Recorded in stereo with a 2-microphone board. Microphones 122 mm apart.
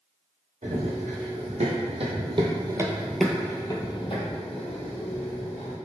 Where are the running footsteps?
75° right (ahead or behind), 1.4 m; by 5.8 s 65° left (ahead or behind), 1.5 m.